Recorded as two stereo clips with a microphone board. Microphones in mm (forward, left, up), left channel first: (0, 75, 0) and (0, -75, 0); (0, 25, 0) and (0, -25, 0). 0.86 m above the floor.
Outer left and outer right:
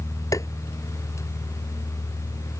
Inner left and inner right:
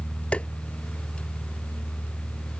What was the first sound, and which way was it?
Tapping, 20° left (ahead or behind).